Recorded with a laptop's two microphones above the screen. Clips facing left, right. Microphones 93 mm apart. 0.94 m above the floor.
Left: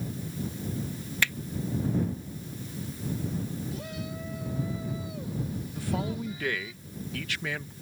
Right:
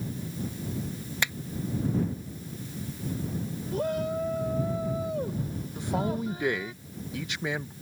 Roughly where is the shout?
Right.